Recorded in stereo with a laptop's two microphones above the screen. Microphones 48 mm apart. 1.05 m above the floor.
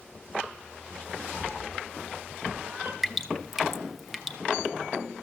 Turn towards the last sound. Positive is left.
turn(degrees=0)  # may be behind; listen again after turning